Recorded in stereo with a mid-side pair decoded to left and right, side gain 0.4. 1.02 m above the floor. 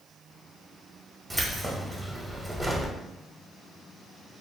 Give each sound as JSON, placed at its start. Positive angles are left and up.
{"t": 1.3, "sound": "keys jangling", "azimuth_deg": -15, "distance_m": 0.8}